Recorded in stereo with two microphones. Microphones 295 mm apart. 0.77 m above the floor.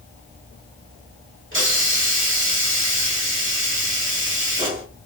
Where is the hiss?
45° right (ahead or behind), 1.7 m.